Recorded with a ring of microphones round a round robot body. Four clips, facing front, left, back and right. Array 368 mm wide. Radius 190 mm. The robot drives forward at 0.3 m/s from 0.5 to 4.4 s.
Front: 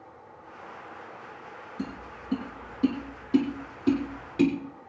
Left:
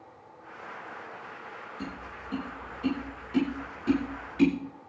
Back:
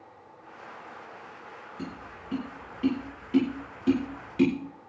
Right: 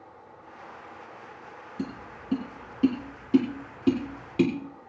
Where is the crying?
No crying in this recording.